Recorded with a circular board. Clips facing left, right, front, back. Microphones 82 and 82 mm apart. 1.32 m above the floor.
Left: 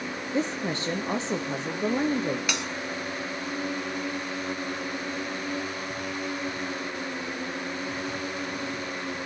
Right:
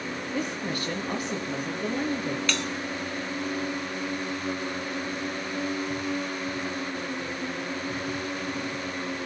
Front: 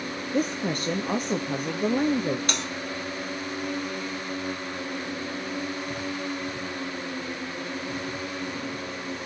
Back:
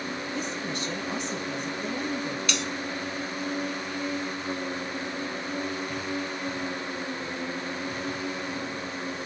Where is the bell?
20° left, 0.6 m.